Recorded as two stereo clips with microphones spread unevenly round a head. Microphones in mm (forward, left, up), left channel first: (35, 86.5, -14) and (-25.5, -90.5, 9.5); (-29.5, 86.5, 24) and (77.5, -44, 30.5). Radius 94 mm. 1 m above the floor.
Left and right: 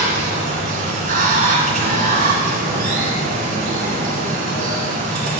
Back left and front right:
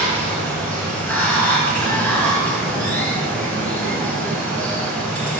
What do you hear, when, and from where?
0.0 s running water: 145° right, 1.9 m